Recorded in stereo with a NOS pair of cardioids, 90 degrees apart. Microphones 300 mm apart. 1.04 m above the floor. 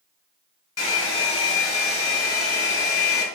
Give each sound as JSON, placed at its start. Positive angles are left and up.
{"t": 0.8, "sound": "a hair dryer", "azimuth_deg": 50, "distance_m": 2.5}